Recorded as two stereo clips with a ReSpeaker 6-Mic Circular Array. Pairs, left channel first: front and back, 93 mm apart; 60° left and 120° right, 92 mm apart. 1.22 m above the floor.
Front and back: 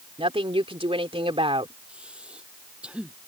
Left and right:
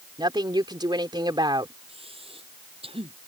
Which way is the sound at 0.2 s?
160° right.